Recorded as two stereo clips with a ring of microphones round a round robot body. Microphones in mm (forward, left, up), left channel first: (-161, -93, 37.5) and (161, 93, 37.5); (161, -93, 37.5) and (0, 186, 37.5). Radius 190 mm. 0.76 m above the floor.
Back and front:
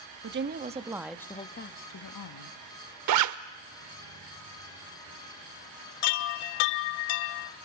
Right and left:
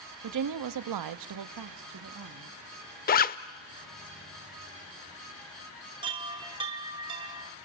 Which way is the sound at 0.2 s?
90° left.